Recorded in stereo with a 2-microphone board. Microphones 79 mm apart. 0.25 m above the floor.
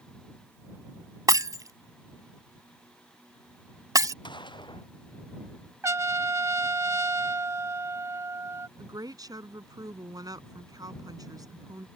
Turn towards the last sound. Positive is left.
turn(degrees=-55)  # may be behind; listen again after turning